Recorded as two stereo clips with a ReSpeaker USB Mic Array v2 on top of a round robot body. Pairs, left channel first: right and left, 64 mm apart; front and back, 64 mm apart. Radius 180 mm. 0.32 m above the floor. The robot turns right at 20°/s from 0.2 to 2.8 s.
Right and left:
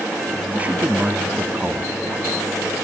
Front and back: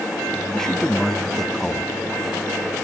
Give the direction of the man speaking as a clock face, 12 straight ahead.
10 o'clock.